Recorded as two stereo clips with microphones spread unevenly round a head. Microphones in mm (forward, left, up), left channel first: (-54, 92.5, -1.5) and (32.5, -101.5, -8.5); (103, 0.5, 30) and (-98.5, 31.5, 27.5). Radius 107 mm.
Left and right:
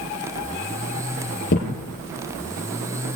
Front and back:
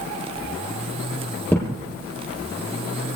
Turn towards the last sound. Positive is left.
turn(degrees=70)